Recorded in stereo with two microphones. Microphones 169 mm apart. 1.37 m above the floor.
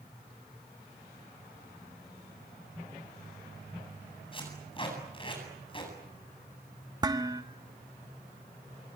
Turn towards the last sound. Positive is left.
turn(degrees=-20)  # may be behind; listen again after turning